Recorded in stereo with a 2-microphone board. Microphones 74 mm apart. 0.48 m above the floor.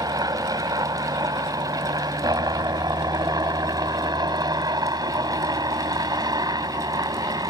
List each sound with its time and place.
0.0 s a helicopter: 65° right (ahead or behind)